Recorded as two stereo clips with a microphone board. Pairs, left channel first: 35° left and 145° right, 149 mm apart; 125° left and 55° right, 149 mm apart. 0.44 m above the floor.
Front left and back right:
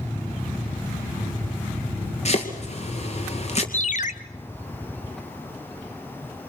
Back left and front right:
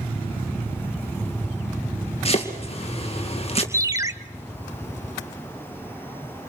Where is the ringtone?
10° left, 0.8 m.